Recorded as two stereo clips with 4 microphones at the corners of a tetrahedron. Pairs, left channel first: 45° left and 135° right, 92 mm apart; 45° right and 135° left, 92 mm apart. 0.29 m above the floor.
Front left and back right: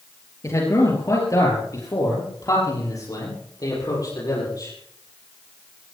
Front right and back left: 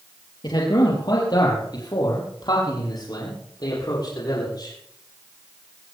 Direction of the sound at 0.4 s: 10° right.